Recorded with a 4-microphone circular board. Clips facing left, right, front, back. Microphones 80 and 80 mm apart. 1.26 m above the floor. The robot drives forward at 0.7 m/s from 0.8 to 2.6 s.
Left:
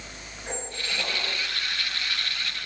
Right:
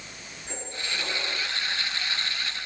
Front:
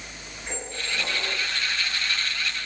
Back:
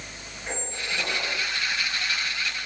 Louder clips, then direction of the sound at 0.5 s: Left 2 dB, back 1 dB; 115° left.